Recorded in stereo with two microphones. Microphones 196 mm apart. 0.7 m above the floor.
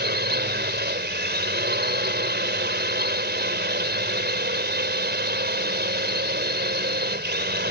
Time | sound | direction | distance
0.0 | a drone | 60° right (ahead or behind) | ?